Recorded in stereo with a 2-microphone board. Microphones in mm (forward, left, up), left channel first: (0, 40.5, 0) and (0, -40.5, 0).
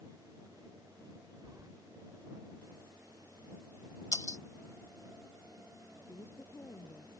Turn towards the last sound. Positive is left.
turn(degrees=30)  # may be behind; listen again after turning